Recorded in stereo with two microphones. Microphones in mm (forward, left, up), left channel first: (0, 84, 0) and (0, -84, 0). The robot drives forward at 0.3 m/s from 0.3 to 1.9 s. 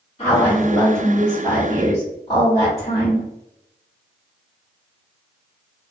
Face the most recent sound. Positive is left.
turn(degrees=30)  # may be behind; listen again after turning